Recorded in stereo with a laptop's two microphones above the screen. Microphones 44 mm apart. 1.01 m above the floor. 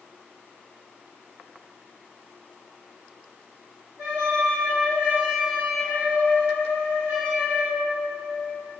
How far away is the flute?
About 2.0 m.